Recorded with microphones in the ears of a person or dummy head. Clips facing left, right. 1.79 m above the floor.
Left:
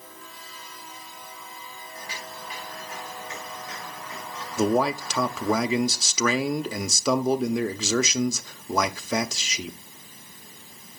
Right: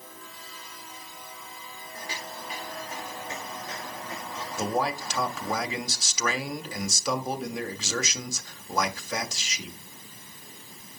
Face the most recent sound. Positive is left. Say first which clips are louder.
# left 6 dB
turn(degrees=65)  # may be behind; listen again after turning